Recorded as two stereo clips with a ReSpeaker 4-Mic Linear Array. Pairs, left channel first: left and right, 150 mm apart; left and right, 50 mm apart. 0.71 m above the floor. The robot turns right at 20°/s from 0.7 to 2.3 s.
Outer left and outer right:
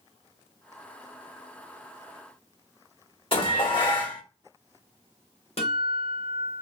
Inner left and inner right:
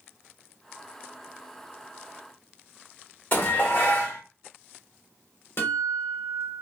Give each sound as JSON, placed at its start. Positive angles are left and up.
{"t": 3.3, "sound": "dishes clattering", "side_deg": 40, "distance_m": 1.4}
{"t": 5.6, "sound": "a guitar", "side_deg": 45, "distance_m": 0.8}